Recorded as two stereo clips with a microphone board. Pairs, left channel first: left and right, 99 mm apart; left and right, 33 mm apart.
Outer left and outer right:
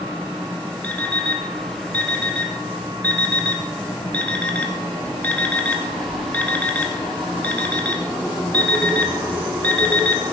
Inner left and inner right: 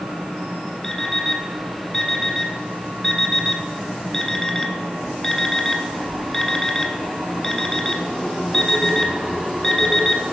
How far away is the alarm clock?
About 1.6 m.